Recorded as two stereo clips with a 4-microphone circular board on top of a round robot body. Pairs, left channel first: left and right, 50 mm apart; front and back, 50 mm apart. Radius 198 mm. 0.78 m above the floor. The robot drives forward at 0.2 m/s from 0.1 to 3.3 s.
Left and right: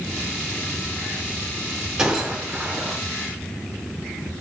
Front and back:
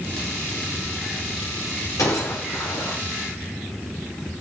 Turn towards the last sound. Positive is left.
turn(degrees=-30)